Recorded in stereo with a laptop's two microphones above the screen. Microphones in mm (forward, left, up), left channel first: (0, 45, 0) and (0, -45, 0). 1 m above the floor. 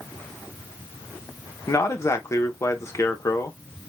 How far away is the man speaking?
About 1.0 m.